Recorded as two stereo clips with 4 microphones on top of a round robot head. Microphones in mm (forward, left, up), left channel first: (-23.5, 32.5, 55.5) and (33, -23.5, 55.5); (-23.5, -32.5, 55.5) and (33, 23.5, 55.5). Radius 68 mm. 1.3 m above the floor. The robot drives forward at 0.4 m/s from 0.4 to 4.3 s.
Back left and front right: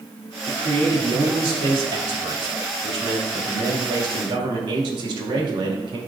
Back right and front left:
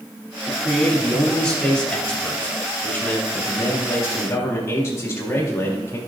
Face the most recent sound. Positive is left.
turn(degrees=-80)